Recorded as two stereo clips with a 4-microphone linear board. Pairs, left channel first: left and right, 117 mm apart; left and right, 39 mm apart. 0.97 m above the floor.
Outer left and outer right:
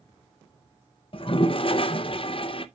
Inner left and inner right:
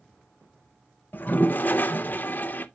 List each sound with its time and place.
1.1 s a toilet flushing: 50° left (ahead or behind), 0.6 m